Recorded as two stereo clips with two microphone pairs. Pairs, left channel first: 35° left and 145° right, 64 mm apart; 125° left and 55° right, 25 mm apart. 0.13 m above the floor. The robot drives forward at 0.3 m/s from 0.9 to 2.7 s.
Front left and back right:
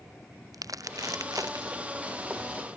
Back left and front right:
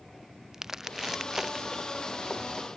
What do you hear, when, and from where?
0.5 s crumpling: 135° right